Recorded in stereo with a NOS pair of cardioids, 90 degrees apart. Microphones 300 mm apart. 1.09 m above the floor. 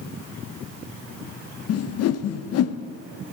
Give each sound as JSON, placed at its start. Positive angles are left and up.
{"t": 1.7, "sound": "a whoosh", "azimuth_deg": 55, "distance_m": 0.6}